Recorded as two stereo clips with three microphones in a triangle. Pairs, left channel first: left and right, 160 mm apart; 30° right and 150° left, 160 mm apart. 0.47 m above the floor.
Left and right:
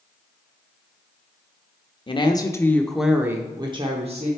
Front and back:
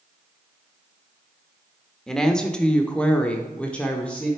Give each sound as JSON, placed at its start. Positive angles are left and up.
{"t": 2.1, "sound": "a woman speaking", "azimuth_deg": 55, "distance_m": 0.9}